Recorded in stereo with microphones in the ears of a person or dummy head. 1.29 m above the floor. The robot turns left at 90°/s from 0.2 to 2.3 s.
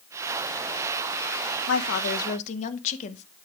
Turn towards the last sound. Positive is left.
turn(degrees=45)